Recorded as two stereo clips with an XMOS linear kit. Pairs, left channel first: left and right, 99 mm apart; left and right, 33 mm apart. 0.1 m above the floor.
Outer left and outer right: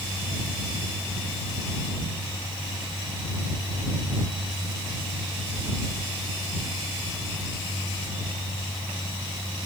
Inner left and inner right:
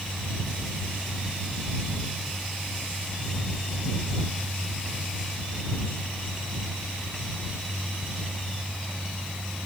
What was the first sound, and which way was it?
Only background noise.